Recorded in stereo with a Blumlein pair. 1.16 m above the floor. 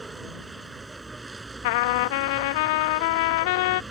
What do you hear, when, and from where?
0.0 s a vehicle: 5° right
1.6 s a trumpet: 50° left